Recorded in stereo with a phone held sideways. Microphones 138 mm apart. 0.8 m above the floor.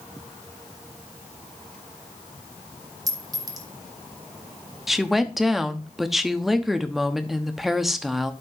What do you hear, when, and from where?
3.1 s a clink: 25° right (ahead or behind), 1.3 m
4.9 s a woman speaking: centre (ahead or behind), 0.8 m